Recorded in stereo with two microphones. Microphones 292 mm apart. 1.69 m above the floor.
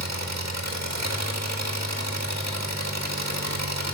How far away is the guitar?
No guitar in this recording.